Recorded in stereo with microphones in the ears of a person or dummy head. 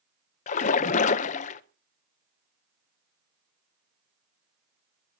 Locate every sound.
0.5 s a splash: 40° left (ahead or behind), 0.8 m